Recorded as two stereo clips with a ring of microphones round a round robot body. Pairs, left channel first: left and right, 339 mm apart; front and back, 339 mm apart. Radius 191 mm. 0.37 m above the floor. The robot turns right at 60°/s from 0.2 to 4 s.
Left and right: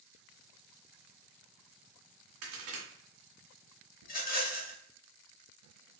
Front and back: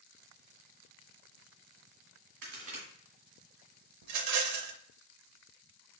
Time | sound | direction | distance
2.4 | a crack | 140° right | 1.8 m
4.0 | a rattle | 155° left | 0.7 m